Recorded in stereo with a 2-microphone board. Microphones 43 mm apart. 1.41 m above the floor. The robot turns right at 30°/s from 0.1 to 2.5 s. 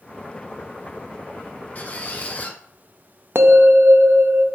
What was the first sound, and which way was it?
A squeak, 35° left (ahead or behind).